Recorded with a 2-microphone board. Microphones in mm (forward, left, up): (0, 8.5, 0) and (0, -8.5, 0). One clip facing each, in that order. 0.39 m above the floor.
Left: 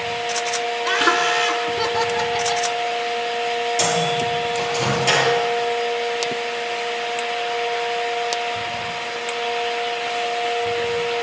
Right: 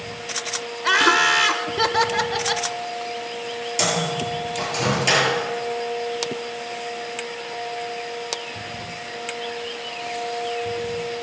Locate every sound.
0.8 s laughter: 20° right (ahead or behind), 0.9 m
3.8 s a microwave: 15° right (ahead or behind), 8 m